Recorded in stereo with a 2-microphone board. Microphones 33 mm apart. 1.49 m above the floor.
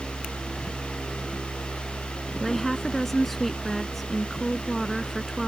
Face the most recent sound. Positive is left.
turn(degrees=0)  # may be behind; listen again after turning